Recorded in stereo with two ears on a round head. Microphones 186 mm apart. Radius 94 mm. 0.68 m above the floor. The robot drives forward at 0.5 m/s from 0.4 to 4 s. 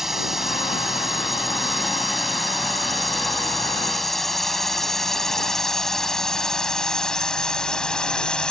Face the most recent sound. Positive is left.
turn(degrees=5)  # may be behind; listen again after turning